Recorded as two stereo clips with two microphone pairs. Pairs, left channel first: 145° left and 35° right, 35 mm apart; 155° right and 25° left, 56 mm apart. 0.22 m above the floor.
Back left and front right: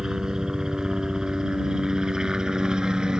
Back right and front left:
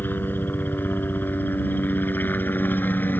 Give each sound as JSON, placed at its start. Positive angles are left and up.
{"t": 0.0, "sound": "a helicopter", "azimuth_deg": -100}